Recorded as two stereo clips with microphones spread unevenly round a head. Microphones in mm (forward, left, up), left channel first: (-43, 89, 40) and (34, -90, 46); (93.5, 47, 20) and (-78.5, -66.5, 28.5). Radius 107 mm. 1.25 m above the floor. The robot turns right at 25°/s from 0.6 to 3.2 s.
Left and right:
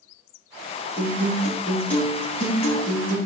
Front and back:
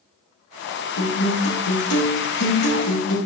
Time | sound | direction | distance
1.0 | a guitar | 10° left | 3.5 m